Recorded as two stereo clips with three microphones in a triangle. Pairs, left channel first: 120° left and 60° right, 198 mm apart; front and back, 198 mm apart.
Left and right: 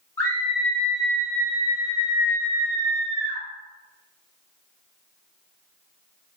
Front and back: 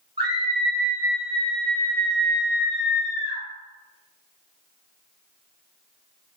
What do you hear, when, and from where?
0.2 s a scream: 170° left, 1.2 m; by 3.4 s 45° left, 1.8 m